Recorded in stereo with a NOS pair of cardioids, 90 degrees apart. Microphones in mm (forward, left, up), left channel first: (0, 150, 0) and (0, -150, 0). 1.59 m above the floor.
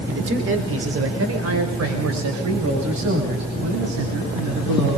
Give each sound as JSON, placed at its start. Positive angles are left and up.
{"t": 0.1, "sound": "a man speaking", "azimuth_deg": -40, "distance_m": 4.5}